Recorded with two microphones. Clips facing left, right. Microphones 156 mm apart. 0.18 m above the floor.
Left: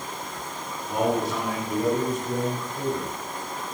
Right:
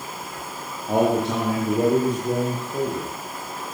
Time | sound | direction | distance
0.9 | a man speaking | 80° right | 5.5 m